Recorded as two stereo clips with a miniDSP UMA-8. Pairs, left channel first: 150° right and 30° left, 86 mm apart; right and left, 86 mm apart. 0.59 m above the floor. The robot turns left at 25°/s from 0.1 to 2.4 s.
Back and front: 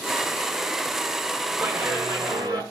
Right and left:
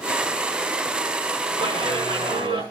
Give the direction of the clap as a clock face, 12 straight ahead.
9 o'clock.